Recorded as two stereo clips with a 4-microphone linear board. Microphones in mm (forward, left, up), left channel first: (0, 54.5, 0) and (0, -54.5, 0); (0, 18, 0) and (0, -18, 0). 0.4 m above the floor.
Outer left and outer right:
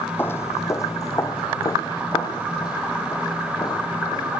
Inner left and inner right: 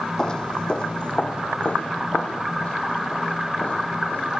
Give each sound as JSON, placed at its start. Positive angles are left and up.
{"t": 0.2, "sound": "footsteps", "side_deg": 20, "distance_m": 1.1}